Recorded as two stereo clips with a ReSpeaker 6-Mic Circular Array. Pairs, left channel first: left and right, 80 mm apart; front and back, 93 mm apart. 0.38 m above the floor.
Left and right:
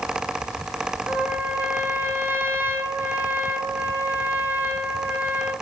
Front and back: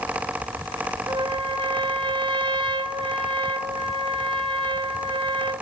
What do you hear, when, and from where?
1.1 s a trumpet: 155° right, 2.5 m